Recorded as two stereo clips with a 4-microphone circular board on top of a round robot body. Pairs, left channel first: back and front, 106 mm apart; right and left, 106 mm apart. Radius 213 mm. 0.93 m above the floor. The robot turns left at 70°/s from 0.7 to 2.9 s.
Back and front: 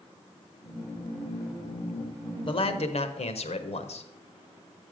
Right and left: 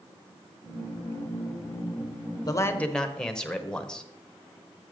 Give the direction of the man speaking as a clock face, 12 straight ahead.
5 o'clock.